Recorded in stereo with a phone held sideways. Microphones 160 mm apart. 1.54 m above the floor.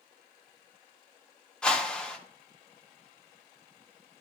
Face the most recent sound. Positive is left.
turn(degrees=5)  # may be behind; listen again after turning